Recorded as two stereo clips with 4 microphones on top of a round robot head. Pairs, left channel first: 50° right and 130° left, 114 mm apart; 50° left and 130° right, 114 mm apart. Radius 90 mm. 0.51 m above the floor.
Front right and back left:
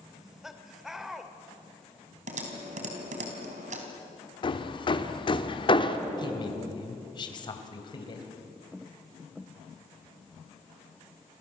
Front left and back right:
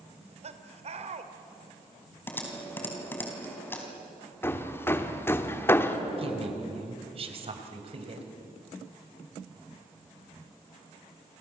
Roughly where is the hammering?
Ahead.